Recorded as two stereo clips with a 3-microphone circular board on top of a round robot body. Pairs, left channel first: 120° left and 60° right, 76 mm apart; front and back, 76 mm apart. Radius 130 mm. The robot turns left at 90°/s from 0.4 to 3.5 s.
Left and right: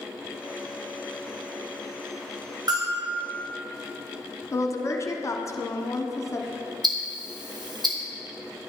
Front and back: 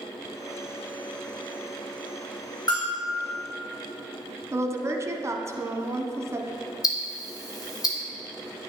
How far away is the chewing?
I don't hear chewing.